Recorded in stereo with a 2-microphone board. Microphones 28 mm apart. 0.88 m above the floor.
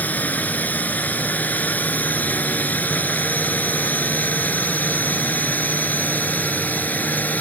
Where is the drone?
70° left (ahead or behind); by 7.4 s 80° left.